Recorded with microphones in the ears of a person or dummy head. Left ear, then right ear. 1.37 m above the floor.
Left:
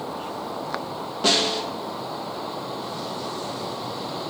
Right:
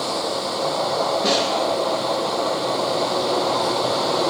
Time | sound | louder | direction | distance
1.2 | a snare drum | left 4 dB | 10° left (ahead or behind) | 1.6 m